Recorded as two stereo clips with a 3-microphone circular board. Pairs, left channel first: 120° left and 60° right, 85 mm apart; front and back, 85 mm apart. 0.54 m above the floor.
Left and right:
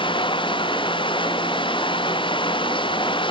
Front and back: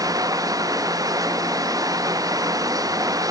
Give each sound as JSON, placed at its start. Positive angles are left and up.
{"t": 0.0, "sound": "running water", "azimuth_deg": 135}